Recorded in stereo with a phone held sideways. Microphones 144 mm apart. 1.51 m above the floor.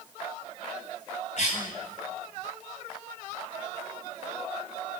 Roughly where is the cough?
Left.